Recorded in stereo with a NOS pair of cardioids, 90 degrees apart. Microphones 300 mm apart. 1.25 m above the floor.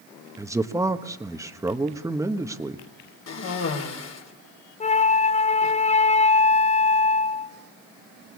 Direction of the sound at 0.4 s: 10° right.